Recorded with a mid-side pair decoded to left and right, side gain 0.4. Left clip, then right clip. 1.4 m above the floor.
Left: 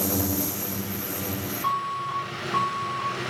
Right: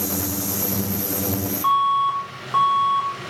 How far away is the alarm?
About 6 m.